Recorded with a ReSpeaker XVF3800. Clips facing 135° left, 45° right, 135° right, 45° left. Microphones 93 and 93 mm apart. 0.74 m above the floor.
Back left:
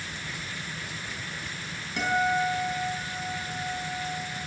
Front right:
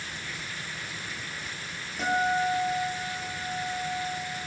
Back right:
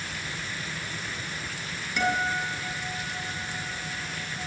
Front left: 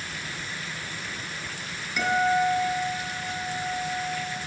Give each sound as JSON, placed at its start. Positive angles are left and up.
{"t": 2.0, "sound": "a guitar", "azimuth_deg": 130, "distance_m": 6.0}